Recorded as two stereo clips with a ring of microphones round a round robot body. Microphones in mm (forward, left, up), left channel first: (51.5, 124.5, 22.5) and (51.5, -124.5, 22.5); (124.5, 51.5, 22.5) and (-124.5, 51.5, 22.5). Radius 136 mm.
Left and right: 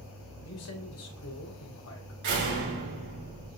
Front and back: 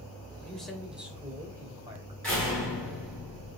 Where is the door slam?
85° right, 5 m.